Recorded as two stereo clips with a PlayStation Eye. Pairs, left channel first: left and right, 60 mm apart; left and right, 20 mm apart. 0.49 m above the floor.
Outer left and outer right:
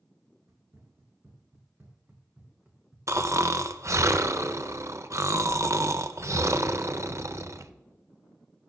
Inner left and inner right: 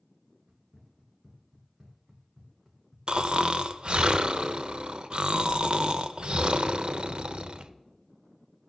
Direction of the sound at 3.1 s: 55° right (ahead or behind).